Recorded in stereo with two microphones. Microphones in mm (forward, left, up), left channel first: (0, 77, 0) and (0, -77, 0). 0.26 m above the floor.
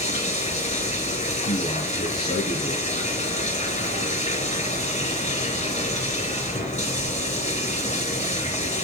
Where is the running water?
50° left (ahead or behind), 4.5 m.